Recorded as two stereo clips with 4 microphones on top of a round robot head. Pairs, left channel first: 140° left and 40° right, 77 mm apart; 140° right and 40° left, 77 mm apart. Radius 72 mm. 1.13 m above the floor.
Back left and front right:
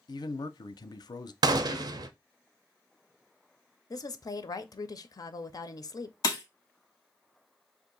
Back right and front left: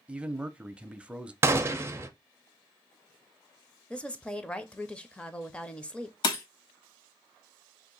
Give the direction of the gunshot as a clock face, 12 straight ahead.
1 o'clock.